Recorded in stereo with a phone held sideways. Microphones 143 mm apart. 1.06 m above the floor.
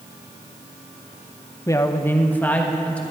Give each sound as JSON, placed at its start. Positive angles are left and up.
{"t": 1.7, "sound": "a woman speaking", "side_deg": 20, "distance_m": 0.6}